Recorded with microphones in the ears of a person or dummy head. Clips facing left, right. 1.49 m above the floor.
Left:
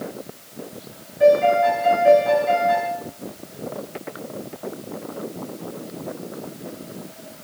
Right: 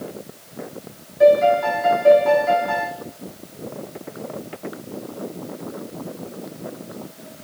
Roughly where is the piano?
Right.